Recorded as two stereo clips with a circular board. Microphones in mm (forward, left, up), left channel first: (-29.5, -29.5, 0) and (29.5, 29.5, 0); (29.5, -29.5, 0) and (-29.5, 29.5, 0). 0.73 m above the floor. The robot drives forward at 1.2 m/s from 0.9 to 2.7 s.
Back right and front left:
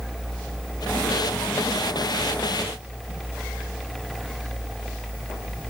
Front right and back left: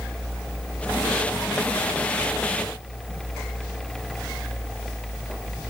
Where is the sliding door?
No sliding door in this recording.